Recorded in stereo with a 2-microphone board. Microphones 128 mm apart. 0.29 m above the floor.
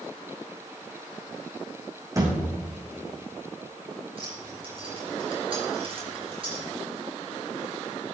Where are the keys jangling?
45° right (ahead or behind), 4.5 m.